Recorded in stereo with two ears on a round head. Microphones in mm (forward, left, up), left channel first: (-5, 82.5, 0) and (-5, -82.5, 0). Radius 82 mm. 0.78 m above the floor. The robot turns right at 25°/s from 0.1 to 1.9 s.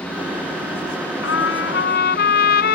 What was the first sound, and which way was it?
A trumpet, 75° left (ahead or behind).